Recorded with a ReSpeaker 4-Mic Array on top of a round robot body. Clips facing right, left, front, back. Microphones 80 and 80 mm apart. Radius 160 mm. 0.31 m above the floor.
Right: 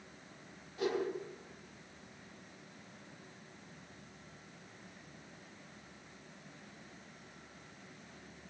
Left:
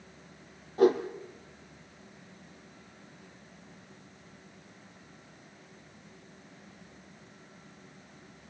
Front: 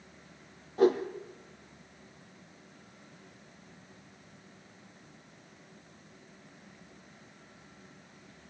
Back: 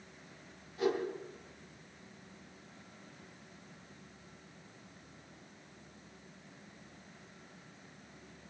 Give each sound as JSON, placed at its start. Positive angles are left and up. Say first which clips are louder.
{"t": 0.8, "sound": "a whoosh", "louder": "left 12 dB, front 8 dB", "azimuth_deg": 45, "distance_m": 4.5}